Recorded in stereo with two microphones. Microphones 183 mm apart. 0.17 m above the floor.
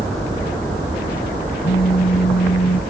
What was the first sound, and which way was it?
A phone buzzing, 70° left (ahead or behind).